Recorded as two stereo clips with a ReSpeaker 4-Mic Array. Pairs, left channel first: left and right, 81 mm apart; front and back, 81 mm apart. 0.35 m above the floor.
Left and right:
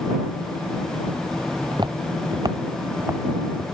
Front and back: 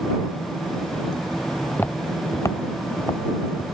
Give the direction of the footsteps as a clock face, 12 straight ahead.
2 o'clock.